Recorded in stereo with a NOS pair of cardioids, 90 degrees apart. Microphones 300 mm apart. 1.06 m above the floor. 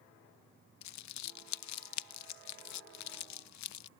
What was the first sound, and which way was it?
Crumpling, 65° left.